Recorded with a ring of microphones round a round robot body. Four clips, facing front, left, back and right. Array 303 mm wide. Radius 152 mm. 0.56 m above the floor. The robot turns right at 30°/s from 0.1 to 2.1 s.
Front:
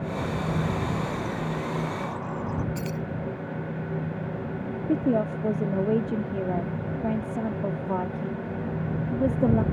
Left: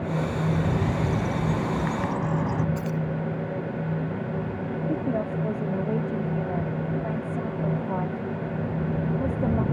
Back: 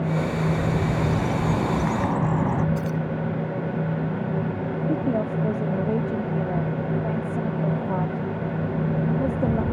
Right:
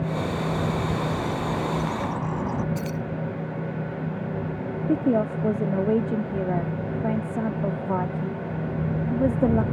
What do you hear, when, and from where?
0.5 s a bird: 120° left; by 2.6 s 170° left
2.8 s keys jangling: 40° right
4.9 s a woman speaking: 70° right